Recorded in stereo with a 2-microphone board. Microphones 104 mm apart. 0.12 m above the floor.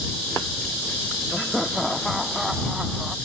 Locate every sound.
1.3 s laughter: centre (ahead or behind); by 3.1 s 5° right (ahead or behind)